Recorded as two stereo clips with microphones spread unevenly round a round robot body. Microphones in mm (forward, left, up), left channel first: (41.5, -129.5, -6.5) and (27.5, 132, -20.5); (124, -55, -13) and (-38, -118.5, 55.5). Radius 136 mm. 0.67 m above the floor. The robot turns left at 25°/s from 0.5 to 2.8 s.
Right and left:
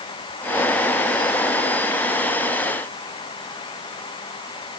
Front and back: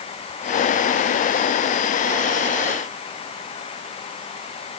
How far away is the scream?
I don't hear a scream.